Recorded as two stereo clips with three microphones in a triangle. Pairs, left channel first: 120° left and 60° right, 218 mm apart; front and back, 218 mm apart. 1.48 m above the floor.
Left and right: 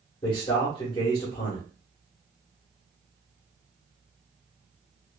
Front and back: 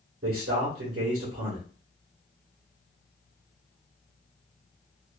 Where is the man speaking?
170° right, 1.4 m.